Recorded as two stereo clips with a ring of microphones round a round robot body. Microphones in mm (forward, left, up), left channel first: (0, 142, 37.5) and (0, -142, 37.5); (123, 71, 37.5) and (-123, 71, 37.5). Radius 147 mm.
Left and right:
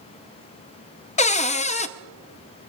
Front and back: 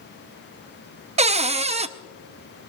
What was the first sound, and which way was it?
A cupboard door, 135° left.